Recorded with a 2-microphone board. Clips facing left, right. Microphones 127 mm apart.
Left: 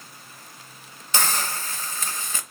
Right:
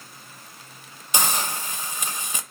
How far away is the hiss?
About 0.5 m.